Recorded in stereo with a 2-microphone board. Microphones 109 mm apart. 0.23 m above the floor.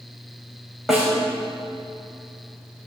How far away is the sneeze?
No sneeze in this recording.